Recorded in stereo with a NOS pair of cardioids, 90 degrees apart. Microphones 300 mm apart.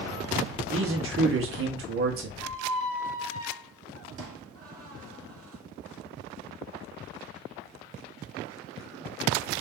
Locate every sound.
0.7 s a man speaking: 45° right, 1.3 m
2.4 s a squeak: 50° right, 1.3 m